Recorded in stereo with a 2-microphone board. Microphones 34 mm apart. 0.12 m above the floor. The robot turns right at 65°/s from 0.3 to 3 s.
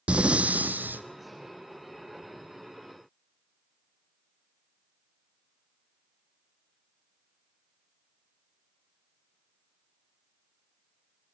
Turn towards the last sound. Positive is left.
turn(degrees=35)